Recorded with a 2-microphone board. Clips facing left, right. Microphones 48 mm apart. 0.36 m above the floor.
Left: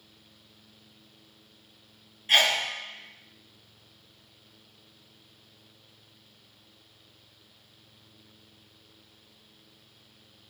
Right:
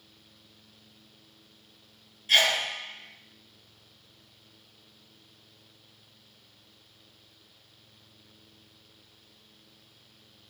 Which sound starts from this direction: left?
A sneeze, at 2.3 s.